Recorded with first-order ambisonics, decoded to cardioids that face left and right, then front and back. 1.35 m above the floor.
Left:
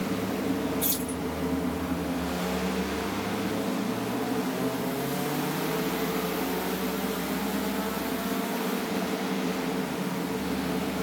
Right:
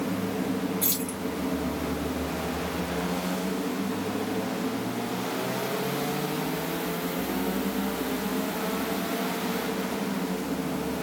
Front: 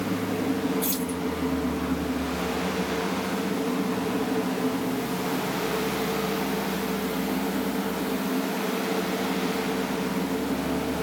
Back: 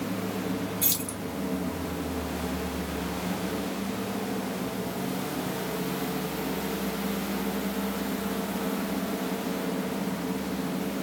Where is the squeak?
I don't hear a squeak.